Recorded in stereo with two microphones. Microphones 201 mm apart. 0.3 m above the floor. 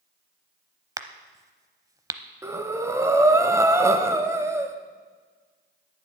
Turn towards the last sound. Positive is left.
turn(degrees=-15)  # may be behind; listen again after turning